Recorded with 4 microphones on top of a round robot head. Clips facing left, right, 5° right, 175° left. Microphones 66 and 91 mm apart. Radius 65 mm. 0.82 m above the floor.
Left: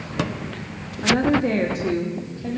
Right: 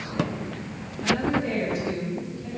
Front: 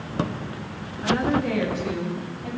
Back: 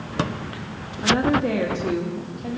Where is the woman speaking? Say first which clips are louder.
Left 5 dB, back 2 dB; 120° left, 1.4 m.